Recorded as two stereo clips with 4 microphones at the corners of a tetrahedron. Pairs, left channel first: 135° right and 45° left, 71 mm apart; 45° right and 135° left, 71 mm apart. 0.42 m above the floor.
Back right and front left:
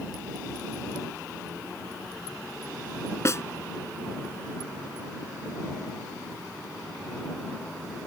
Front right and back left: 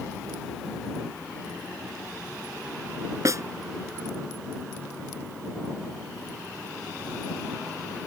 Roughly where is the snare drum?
Behind.